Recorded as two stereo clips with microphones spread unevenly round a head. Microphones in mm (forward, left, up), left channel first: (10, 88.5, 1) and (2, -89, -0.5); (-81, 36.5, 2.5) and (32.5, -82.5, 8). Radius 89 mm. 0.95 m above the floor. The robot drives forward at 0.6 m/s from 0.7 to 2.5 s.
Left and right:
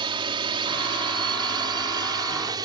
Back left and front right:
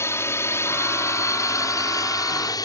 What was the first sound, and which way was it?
A drone, 155° right.